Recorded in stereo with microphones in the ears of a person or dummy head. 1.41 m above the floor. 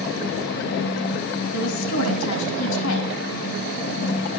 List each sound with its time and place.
1.5 s a woman speaking: 75° left (ahead or behind), 2 m